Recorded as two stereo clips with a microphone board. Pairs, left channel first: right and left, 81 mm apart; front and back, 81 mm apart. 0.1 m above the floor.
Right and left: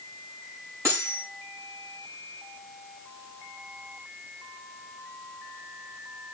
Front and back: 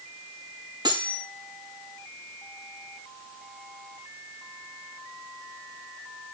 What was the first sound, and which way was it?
Cutlery clinking, 145° left.